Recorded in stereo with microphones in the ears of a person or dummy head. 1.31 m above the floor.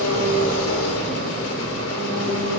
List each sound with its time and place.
0.0 s an engine running: 80° left, 4 m